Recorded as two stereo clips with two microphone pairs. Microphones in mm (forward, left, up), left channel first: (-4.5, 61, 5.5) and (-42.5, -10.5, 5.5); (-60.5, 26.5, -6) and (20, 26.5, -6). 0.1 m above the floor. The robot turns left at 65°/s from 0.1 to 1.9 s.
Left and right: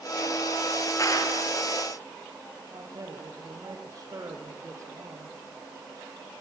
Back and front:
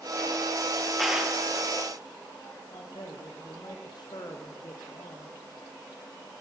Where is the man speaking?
160° right, 3.5 m.